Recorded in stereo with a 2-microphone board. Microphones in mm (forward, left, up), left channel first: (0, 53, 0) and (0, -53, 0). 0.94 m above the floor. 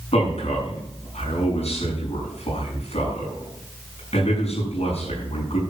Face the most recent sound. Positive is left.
turn(degrees=75)  # may be behind; listen again after turning